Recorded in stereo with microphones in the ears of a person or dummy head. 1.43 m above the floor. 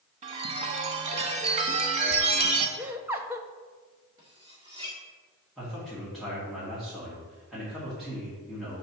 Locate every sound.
0.2 s a chime: 35° right (ahead or behind), 0.8 m
2.8 s laughter: 15° right (ahead or behind), 0.6 m
4.2 s cutlery clinking: 30° right (ahead or behind), 1.4 m
5.6 s a man speaking: centre (ahead or behind), 1.8 m